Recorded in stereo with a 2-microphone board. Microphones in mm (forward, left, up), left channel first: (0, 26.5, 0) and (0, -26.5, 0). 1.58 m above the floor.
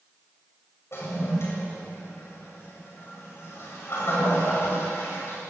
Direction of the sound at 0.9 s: 55° left (ahead or behind).